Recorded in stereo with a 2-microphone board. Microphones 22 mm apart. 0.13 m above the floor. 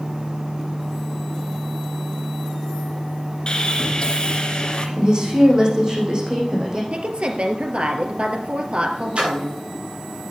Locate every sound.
3.5 s sawing: 40° left (ahead or behind), 2 m
5.0 s a woman speaking: 35° right (ahead or behind), 6 m
6.9 s a woman speaking: 60° right (ahead or behind), 2.5 m
9.2 s a splash: 55° right (ahead or behind), 6 m